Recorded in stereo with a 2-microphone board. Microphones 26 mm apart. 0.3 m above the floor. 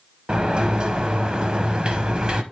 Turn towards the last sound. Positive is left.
turn(degrees=-35)  # may be behind; listen again after turning